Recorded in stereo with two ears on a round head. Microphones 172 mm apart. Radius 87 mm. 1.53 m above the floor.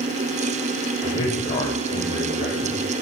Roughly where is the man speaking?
Left.